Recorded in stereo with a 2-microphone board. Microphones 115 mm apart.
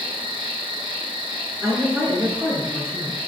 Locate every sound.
0.0 s an insect: 50° right (ahead or behind), 0.7 m
1.6 s a woman speaking: 20° right (ahead or behind), 1.2 m